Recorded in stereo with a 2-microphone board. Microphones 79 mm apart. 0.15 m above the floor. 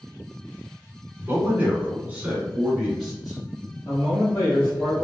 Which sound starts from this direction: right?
A man speaking, at 1.2 s.